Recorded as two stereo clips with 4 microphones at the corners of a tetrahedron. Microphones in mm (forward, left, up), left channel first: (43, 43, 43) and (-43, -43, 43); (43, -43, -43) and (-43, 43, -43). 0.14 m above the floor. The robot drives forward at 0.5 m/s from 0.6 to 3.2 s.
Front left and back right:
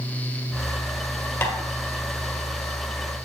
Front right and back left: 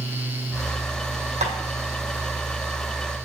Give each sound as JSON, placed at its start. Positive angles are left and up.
{"t": 1.4, "sound": "tapping", "azimuth_deg": 115, "distance_m": 1.5}